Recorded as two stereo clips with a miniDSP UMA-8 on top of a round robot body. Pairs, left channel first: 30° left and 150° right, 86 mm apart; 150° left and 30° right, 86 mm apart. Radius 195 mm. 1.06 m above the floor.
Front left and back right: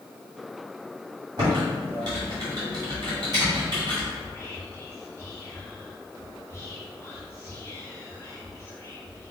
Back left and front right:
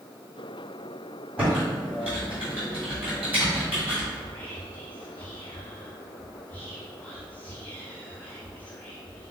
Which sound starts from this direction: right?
Typing on a keyboard, at 1.4 s.